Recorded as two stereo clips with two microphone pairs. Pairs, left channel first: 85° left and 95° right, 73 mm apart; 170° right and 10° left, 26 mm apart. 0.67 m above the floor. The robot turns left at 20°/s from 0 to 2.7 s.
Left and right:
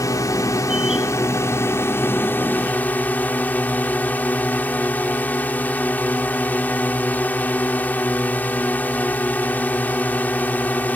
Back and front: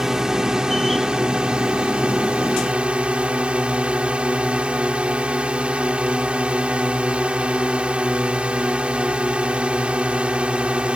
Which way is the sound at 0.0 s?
80° left.